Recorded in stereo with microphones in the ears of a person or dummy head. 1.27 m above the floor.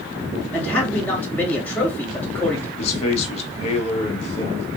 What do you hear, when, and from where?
0.5 s a man speaking: 10° left (ahead or behind), 1.9 m
2.8 s a man speaking: 40° left (ahead or behind), 1.1 m